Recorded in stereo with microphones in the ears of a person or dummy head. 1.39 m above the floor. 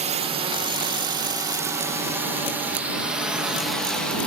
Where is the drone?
30° right (ahead or behind); by 4.3 s 5° left (ahead or behind).